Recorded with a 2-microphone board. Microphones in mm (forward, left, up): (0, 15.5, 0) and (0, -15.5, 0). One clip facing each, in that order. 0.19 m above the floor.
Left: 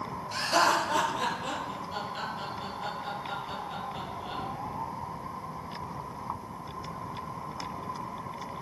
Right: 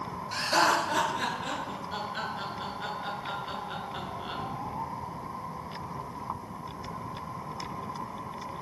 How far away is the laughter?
About 3.5 m.